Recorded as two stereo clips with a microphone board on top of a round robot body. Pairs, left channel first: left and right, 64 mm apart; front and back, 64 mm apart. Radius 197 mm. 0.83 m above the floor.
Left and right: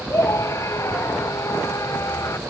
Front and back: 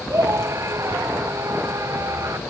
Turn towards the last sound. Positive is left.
turn(degrees=135)